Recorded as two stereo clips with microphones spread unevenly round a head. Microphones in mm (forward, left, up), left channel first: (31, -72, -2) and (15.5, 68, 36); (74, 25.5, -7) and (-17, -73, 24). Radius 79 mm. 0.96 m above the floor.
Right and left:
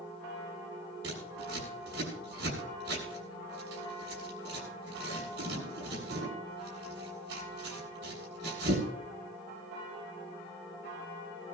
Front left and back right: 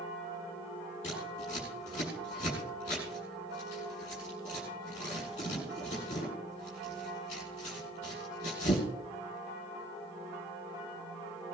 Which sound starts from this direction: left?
Scissors, at 1.0 s.